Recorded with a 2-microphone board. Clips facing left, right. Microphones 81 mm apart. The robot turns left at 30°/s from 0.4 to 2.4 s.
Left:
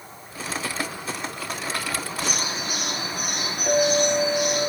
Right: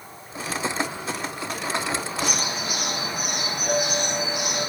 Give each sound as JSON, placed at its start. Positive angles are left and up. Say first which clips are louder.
{"t": 2.2, "sound": "a bird", "louder": "right 1 dB", "side_deg": -10, "distance_m": 5.0}
{"t": 3.7, "sound": "a clink", "louder": "left 6 dB", "side_deg": 50, "distance_m": 3.0}